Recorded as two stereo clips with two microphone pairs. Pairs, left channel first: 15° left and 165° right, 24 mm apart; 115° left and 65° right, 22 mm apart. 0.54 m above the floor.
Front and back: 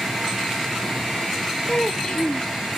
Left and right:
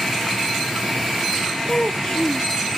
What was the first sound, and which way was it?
A child speaking, 60° left.